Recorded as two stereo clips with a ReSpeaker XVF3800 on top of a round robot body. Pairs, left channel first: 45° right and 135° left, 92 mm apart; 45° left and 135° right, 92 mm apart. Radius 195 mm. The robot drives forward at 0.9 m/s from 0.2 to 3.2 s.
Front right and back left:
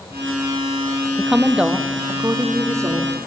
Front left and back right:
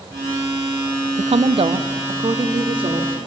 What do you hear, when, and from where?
1.2 s a woman speaking: 130° right, 0.8 m; by 3.2 s 165° right, 2.5 m